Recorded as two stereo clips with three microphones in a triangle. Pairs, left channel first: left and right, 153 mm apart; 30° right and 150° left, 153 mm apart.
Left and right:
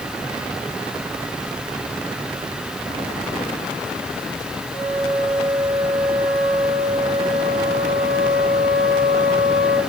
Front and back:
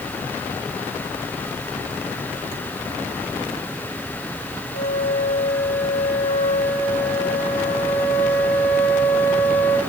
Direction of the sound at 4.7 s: 80° right.